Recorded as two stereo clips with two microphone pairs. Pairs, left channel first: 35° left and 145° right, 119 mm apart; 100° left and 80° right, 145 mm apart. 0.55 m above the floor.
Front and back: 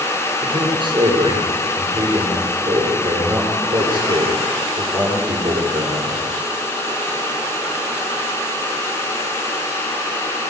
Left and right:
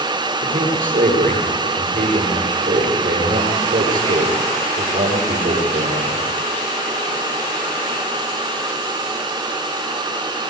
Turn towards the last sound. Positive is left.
turn(degrees=-100)